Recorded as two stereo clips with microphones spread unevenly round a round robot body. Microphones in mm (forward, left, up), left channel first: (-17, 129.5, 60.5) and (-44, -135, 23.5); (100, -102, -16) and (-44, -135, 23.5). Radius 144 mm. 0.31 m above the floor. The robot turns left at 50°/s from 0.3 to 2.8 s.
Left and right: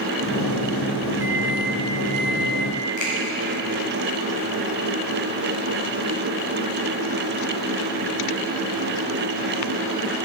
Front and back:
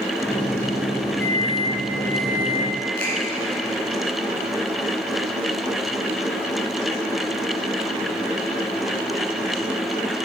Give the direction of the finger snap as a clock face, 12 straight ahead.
11 o'clock.